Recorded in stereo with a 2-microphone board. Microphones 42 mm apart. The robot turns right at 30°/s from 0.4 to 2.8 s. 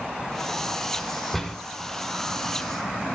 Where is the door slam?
5° left (ahead or behind), 1.5 m; by 1.6 s 10° left (ahead or behind), 1.5 m.